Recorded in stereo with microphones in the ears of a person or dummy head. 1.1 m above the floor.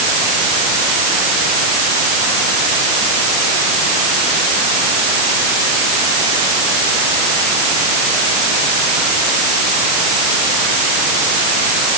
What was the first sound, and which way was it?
Only background noise.